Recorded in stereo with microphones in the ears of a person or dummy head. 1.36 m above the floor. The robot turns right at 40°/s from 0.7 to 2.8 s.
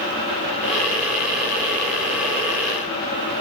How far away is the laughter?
No laughter in this recording.